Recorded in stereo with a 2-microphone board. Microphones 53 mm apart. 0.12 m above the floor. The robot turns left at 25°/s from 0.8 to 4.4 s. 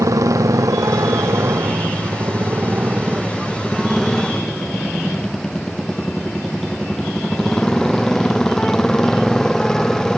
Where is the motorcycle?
100° right; by 10.2 s 170° left.